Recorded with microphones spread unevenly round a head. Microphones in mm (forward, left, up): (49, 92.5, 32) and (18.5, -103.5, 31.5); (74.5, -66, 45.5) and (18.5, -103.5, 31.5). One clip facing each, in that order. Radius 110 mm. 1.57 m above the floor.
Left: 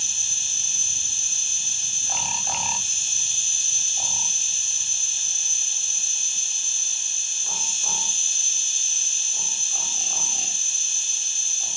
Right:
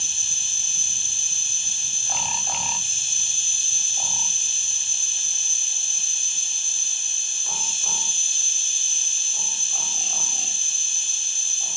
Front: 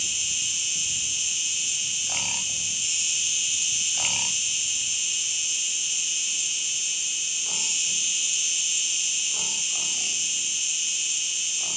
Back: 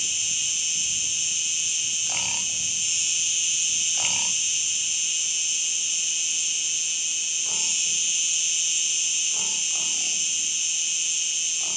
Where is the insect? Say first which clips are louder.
Even, even; 60° right, 3 m.